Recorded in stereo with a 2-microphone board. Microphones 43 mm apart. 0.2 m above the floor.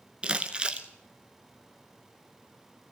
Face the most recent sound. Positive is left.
turn(degrees=-25)  # may be behind; listen again after turning